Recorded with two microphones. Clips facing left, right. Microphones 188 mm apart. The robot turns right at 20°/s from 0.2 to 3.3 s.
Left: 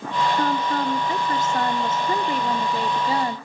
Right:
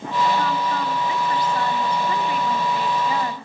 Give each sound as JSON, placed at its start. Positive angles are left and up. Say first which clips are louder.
{"t": 0.4, "sound": "a woman speaking", "louder": "left 1 dB", "azimuth_deg": 75, "distance_m": 1.0}